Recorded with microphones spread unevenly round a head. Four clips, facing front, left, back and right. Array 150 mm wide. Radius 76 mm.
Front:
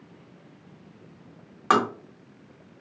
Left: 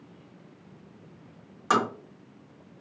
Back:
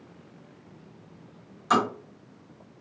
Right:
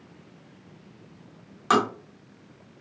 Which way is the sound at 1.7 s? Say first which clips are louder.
Right 3 dB, front 2 dB; 10° right.